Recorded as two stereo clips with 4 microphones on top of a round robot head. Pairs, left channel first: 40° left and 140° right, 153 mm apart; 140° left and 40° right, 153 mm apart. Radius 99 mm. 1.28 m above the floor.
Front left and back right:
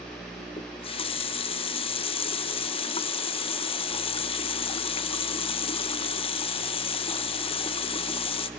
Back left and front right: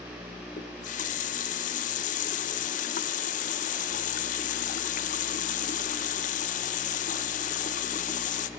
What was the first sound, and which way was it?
A running tap, 95° left.